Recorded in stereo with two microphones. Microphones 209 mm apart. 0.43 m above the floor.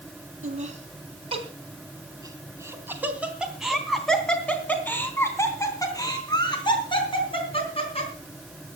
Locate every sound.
0.4 s laughter: 40° right (ahead or behind), 3 m; by 8.1 s 30° left (ahead or behind), 4.5 m